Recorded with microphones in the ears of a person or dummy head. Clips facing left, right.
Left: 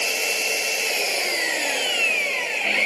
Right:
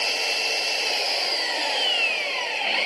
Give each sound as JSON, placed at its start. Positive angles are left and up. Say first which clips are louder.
{"t": 0.0, "sound": "an engine running", "louder": "left 2 dB", "side_deg": 35}